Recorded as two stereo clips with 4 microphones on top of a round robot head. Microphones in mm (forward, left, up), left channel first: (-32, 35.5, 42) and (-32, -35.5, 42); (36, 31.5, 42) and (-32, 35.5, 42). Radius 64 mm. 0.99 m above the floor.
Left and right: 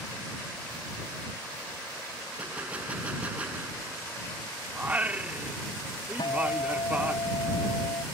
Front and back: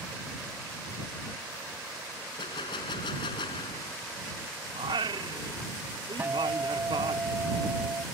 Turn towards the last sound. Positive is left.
turn(degrees=115)